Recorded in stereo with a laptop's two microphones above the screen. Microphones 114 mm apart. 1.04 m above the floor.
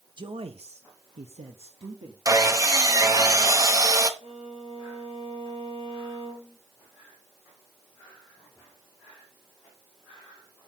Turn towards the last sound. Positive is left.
turn(degrees=-70)  # may be behind; listen again after turning